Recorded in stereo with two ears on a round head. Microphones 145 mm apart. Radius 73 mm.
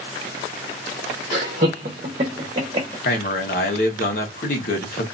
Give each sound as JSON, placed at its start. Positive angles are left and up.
{"t": 1.3, "sound": "laughter", "side_deg": -60, "distance_m": 0.9}
{"t": 3.0, "sound": "a man speaking", "side_deg": 60, "distance_m": 1.1}